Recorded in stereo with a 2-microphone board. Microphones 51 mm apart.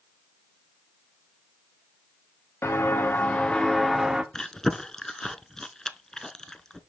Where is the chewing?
10° left (ahead or behind), 0.5 m.